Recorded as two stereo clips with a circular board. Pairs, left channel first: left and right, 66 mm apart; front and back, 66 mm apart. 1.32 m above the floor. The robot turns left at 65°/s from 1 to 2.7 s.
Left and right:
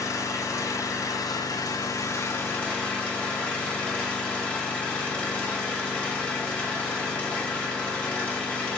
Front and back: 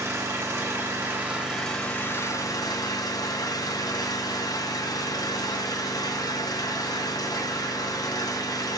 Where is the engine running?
130° left, 5 m; by 8.8 s 20° left, 5 m.